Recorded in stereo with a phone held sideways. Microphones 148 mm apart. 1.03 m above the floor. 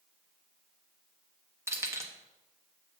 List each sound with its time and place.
1.7 s keys jangling: 20° right (ahead or behind), 1.0 m